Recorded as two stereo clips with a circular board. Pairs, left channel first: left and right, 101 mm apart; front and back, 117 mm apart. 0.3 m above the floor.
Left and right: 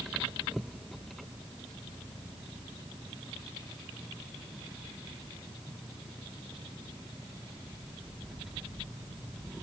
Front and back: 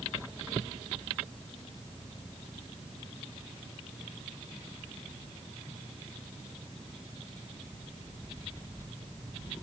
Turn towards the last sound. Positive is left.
No sound to turn to.